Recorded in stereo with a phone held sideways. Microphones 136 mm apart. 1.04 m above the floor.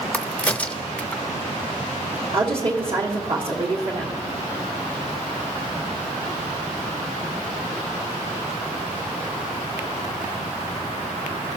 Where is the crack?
10° left (ahead or behind), 0.5 m.